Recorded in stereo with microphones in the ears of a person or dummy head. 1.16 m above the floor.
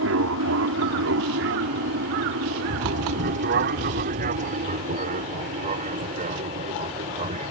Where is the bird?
40° right (ahead or behind).